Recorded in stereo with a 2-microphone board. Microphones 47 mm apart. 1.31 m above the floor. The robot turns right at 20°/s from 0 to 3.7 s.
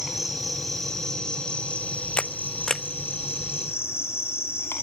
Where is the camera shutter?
20° left (ahead or behind), 0.8 m; by 2.8 s 10° left (ahead or behind), 0.8 m.